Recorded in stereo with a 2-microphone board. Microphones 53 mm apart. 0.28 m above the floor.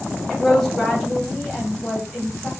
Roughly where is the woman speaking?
Centre.